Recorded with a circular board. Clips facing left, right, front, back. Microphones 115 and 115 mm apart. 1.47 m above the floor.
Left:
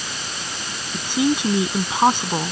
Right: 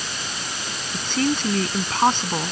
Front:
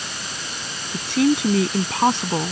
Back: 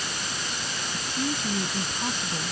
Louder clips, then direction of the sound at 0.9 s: Left 3 dB, front 13 dB; 10° left.